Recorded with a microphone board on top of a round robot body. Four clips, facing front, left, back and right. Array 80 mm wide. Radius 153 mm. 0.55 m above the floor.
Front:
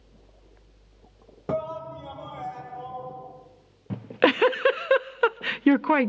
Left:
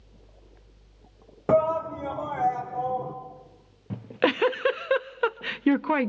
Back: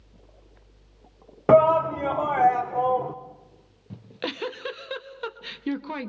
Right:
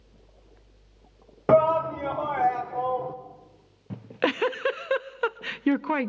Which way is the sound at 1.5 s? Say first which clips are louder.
Right 3 dB, back 14 dB; 155° right.